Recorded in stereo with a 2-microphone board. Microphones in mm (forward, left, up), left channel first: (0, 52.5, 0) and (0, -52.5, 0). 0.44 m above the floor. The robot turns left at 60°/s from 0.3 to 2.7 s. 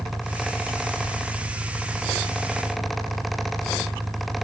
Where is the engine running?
15° right; by 4.5 s 160° right.